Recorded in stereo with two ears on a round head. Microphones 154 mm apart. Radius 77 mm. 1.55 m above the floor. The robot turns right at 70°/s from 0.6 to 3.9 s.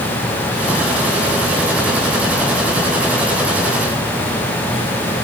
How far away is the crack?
I don't hear a crack.